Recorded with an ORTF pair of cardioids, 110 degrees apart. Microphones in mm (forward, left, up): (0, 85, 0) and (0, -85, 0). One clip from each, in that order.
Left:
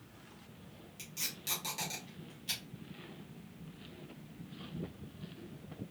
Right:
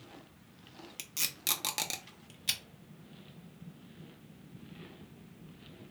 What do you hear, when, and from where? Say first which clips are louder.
1.0 s tape being pulled: right 5 dB; 65° right, 0.8 m